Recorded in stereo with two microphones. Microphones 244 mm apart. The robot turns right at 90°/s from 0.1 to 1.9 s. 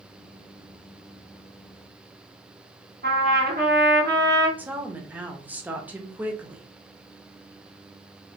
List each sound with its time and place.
3.0 s a trumpet: 40° right (ahead or behind), 1.2 m
4.6 s a woman speaking: 5° right (ahead or behind), 0.8 m